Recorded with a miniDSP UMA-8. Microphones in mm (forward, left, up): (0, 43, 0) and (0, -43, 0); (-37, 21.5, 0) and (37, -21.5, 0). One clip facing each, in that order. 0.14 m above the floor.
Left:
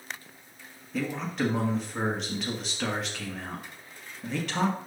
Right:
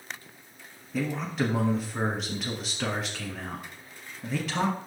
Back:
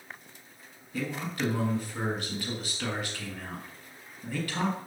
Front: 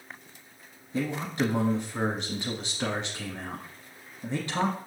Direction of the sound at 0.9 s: 5° right.